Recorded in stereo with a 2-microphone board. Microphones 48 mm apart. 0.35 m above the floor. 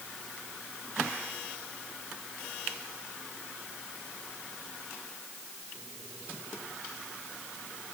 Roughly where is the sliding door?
I don't hear a sliding door.